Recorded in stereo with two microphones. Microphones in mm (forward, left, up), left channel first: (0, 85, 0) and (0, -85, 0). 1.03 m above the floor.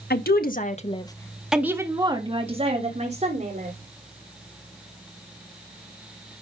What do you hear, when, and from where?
0.1 s a woman speaking: 70° left (ahead or behind), 1.6 m; by 3.7 s 45° right (ahead or behind), 3.5 m